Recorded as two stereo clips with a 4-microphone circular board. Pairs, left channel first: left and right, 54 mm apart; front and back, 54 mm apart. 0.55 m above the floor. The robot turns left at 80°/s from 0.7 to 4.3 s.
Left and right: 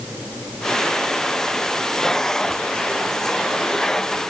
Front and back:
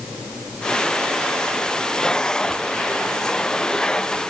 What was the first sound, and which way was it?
Only background noise.